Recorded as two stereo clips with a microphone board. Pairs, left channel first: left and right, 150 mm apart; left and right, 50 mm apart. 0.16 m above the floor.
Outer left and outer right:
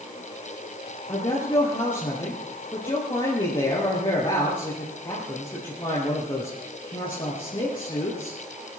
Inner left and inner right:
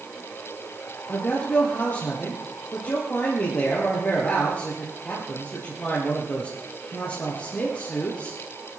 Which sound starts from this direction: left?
A man speaking, at 1.1 s.